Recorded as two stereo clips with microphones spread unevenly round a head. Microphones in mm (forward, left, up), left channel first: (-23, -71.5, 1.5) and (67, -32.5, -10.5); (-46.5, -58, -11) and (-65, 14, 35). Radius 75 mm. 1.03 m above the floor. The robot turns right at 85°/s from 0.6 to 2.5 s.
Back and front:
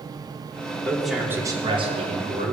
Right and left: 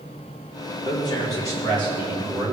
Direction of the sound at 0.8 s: 85° right.